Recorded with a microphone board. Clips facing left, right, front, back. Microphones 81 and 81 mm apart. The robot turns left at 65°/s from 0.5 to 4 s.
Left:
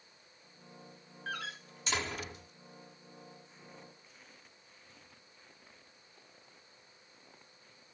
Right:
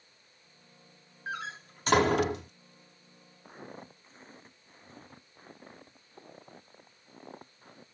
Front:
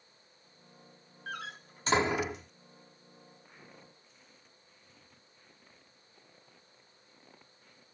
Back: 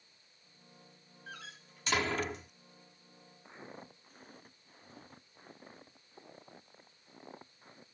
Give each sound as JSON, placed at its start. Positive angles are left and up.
{"t": 1.3, "sound": "a door slam", "azimuth_deg": -20}
{"t": 3.5, "sound": "footsteps", "azimuth_deg": -110}